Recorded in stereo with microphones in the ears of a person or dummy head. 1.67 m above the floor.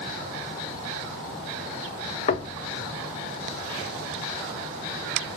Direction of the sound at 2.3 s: 35° left (ahead or behind).